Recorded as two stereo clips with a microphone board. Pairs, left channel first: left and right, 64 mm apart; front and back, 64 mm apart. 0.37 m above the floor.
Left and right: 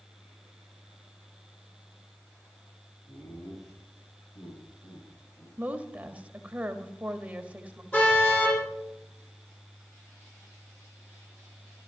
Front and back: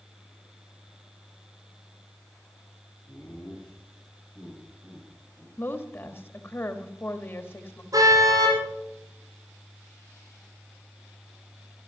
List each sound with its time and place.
3.1 s laughter: 70° left, 5 m; by 5.5 s 95° left, 6 m
5.6 s a woman speaking: 30° right, 1.6 m
7.9 s a car horn: 155° left, 7 m